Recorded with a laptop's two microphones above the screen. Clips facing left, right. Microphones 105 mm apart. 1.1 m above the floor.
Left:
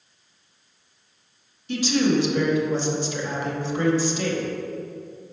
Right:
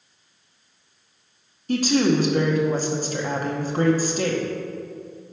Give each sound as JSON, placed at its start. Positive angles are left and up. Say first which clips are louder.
{"t": 1.7, "sound": "a woman speaking", "louder": "right 2 dB", "side_deg": -45, "distance_m": 0.8}